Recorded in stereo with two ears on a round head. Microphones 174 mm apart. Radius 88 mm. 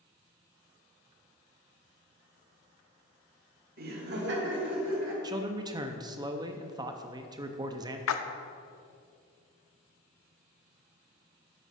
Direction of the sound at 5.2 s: 20° right (ahead or behind).